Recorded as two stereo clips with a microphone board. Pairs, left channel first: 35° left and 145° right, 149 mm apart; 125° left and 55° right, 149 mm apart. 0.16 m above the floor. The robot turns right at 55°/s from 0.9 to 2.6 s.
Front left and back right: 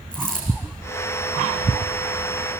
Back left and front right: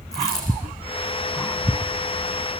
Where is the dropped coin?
170° right, 5 m.